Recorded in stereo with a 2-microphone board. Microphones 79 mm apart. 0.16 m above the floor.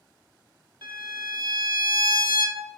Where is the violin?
60° right (ahead or behind), 0.6 m.